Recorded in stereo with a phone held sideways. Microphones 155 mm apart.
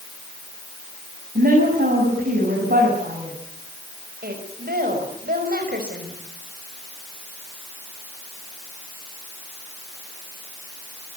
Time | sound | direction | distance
1.4 | a woman speaking | 85° right | 7 m
4.2 | a woman speaking | 80° right | 5.5 m